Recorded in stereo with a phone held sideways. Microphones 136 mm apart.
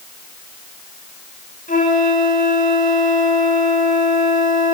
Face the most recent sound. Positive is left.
turn(degrees=80)